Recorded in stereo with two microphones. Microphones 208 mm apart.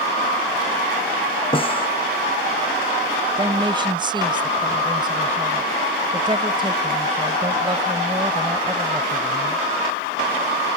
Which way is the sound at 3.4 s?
20° right (ahead or behind).